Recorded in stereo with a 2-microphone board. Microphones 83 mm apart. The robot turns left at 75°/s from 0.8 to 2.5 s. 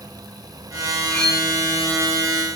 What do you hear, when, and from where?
1.1 s cutlery clinking: 20° left (ahead or behind), 0.9 m; by 1.4 s 5° right (ahead or behind), 0.9 m